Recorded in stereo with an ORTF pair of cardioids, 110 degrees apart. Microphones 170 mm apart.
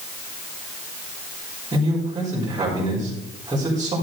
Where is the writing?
No writing in this recording.